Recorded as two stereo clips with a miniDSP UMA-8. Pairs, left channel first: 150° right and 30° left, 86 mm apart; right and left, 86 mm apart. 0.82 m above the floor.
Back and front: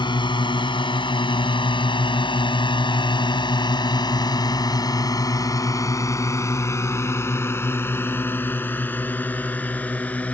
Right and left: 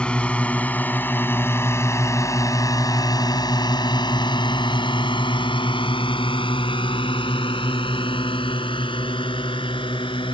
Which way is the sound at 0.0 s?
170° right.